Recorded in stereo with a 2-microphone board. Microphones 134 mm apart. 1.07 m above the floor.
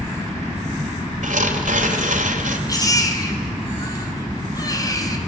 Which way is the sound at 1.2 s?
75° right (ahead or behind).